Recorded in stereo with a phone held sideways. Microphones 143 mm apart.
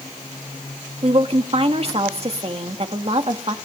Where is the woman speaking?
45° right (ahead or behind), 1.9 m.